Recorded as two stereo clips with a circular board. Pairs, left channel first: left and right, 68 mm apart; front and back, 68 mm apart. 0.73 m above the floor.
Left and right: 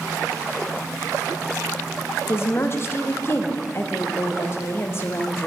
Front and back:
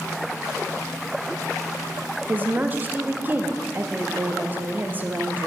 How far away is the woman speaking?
About 0.5 m.